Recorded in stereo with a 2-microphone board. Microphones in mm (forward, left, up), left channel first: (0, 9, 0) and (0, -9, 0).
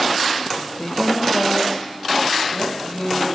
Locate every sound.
0.8 s a woman speaking: 35° left (ahead or behind), 1.0 m; by 3.4 s 65° left (ahead or behind), 2.5 m